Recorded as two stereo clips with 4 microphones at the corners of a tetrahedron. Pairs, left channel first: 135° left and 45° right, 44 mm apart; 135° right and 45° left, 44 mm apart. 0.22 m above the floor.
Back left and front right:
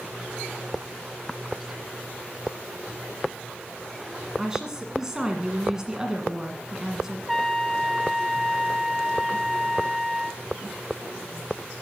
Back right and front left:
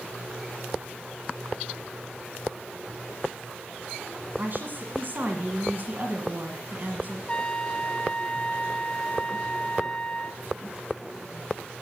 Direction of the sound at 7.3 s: 145° right.